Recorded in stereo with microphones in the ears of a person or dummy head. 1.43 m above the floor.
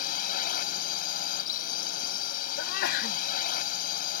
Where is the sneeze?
65° left (ahead or behind).